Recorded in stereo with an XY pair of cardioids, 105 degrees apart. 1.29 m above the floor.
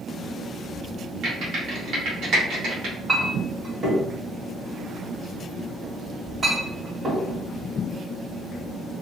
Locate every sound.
1.2 s typing on a keyboard: 70° right, 1.6 m
3.1 s a clink: 35° right, 1.8 m